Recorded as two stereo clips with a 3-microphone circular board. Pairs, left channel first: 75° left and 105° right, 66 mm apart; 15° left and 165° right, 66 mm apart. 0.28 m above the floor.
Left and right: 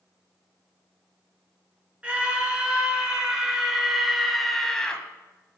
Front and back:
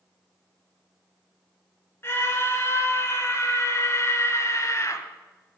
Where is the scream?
35° right, 3 m; by 5.0 s straight ahead, 1.5 m.